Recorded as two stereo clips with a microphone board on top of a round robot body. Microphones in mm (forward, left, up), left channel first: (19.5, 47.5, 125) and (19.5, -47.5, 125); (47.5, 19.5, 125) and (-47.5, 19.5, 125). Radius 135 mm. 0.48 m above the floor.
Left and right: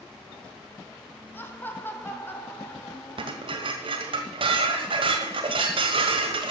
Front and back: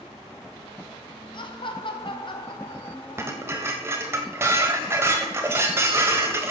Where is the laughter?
25° left, 2.5 m.